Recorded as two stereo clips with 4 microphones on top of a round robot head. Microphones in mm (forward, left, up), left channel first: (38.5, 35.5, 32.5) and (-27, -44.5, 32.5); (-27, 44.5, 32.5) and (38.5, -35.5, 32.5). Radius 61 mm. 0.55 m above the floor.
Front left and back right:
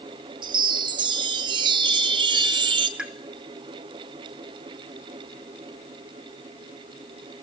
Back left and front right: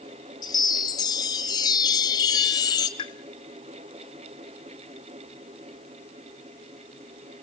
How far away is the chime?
About 2.5 m.